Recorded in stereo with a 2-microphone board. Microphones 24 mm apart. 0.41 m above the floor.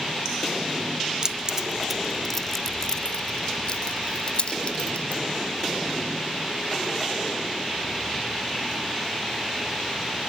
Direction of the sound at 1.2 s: 30° right (ahead or behind).